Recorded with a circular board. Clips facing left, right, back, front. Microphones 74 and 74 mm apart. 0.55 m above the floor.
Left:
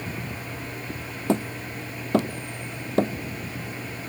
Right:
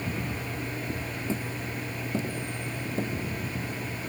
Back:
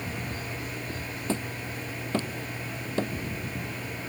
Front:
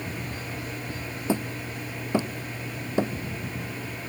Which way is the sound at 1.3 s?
75° left.